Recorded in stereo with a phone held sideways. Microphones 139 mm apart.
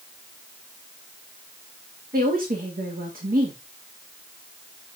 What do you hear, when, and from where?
2.1 s a woman speaking: 80° right, 1.8 m